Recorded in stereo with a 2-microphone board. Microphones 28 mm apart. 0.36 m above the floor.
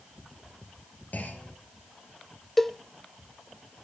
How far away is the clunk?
About 3 m.